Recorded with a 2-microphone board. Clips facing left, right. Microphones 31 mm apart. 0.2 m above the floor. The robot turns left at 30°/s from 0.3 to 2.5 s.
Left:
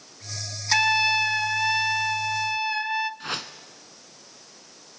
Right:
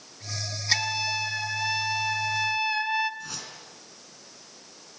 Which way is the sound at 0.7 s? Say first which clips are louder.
Left 7 dB; 55° left.